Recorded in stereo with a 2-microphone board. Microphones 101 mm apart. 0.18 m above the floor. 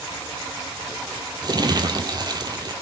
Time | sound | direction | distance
1.4 | crumpling | 45° right (ahead or behind) | 1.8 m